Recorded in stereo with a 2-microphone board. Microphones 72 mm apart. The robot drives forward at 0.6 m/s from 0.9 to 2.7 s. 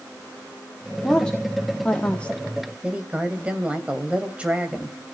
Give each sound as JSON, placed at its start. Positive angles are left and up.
{"t": 1.0, "sound": "a woman speaking", "side_deg": 15, "distance_m": 1.7}
{"t": 2.8, "sound": "a woman speaking", "side_deg": -15, "distance_m": 3.0}